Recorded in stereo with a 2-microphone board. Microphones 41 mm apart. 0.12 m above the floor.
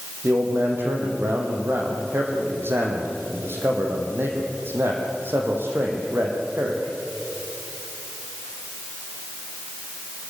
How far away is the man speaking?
About 5.5 m.